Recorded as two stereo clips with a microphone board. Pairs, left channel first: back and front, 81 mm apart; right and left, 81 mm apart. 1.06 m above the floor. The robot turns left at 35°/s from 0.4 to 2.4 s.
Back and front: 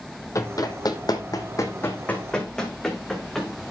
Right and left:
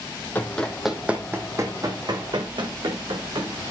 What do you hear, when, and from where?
0.3 s running footsteps: 155° right, 1.6 m; by 3.5 s 95° left, 4 m